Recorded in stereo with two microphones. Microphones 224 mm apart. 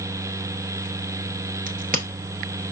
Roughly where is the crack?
Right.